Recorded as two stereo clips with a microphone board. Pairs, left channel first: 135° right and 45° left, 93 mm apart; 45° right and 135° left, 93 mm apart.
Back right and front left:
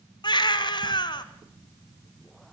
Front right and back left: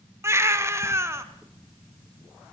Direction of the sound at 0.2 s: 165° right.